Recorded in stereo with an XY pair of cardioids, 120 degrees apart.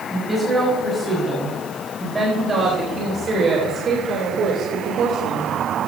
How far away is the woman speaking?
About 6 m.